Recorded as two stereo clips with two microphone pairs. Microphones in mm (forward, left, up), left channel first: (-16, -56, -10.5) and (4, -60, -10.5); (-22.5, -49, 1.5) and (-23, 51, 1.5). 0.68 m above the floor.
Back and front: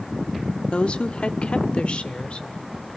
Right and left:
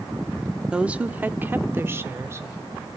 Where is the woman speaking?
170° left, 1.0 m; by 2.9 s 150° left, 2 m.